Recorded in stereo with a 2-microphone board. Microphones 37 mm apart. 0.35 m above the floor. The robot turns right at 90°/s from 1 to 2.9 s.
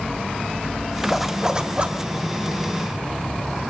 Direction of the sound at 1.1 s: Straight behind.